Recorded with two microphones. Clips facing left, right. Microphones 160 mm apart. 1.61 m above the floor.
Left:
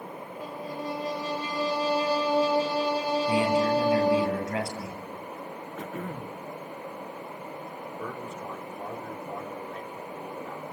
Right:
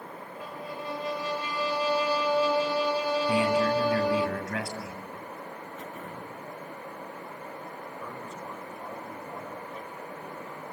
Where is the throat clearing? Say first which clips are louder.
Left 8 dB; 80° left, 1.5 m.